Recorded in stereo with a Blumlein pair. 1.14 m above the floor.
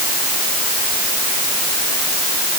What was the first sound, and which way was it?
Only background noise.